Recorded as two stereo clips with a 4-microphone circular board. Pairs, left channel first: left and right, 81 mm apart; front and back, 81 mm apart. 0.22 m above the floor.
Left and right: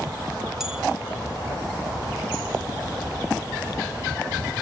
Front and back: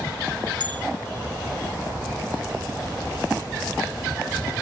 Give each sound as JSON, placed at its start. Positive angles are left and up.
{"t": 0.6, "sound": "a bell", "azimuth_deg": -175, "distance_m": 0.8}